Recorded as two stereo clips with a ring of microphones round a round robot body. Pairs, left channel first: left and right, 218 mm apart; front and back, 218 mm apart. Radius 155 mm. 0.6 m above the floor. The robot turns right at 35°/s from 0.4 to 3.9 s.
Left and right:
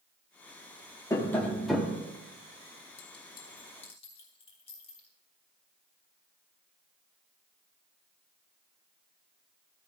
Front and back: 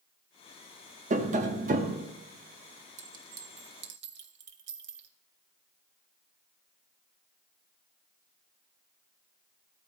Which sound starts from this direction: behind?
Tapping, at 1.1 s.